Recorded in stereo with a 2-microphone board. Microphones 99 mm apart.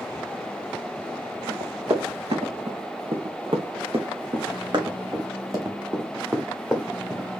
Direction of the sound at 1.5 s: 80° right.